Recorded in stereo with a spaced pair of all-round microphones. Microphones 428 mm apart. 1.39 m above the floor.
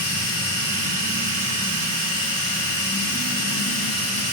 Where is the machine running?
80° left, 3.5 m.